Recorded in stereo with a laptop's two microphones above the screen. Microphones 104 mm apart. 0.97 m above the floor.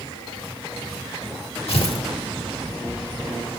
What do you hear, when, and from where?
1.7 s tearing paper: 70° left (ahead or behind), 1.5 m